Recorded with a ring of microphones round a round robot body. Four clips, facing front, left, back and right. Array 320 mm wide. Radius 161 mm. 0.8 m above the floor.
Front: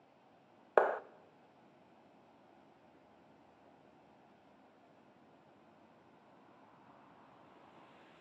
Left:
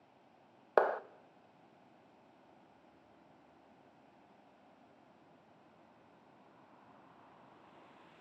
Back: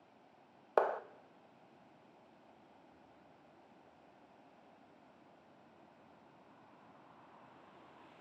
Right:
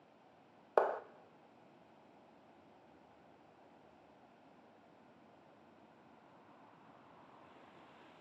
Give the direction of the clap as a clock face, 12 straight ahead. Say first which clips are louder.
Left 3 dB, front 2 dB; 11 o'clock.